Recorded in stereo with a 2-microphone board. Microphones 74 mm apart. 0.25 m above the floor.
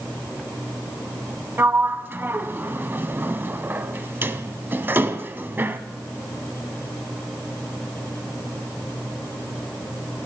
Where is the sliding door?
30° right (ahead or behind), 0.6 m.